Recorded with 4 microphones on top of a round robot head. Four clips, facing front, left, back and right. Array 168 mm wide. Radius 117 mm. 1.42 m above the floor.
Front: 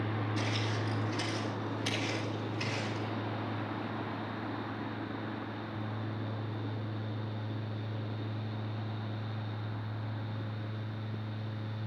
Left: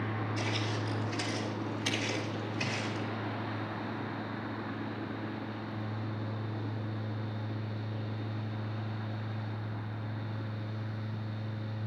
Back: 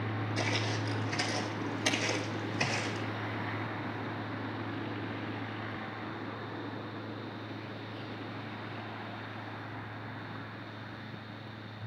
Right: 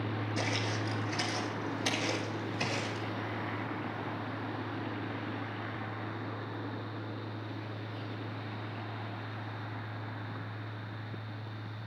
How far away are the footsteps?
About 3.5 m.